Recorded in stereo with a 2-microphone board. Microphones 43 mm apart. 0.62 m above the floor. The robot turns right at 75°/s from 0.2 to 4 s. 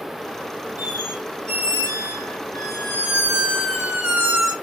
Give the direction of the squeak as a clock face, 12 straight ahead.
1 o'clock.